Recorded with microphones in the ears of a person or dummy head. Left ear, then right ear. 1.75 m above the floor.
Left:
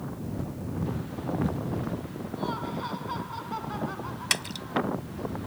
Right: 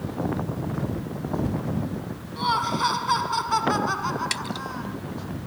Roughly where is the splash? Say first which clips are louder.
Even; left.